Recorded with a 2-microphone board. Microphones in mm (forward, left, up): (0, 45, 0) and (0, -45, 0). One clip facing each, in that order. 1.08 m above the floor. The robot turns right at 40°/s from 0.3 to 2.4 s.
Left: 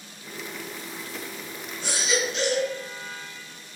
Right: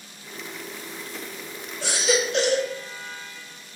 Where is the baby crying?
85° right, 1.9 m; by 2.7 s 70° right (ahead or behind), 1.9 m.